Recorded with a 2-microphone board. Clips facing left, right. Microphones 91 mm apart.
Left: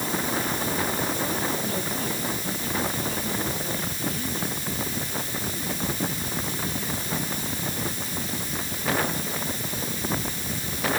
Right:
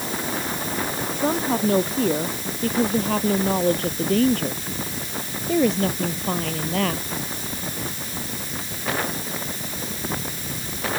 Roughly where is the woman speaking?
Right.